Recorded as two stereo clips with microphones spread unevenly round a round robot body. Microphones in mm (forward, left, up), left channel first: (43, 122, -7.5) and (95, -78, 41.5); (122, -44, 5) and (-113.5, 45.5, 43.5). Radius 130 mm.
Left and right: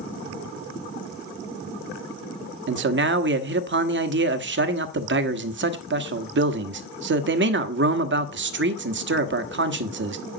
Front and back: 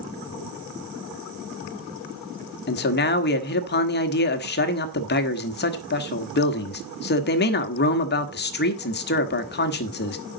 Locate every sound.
2.7 s a man speaking: 50° right, 1.5 m